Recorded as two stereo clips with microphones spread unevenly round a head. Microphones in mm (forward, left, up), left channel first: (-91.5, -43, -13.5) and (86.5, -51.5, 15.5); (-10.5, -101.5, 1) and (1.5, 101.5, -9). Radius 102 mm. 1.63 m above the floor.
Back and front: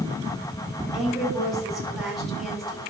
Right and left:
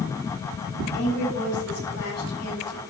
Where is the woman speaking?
90° right, 4.5 m.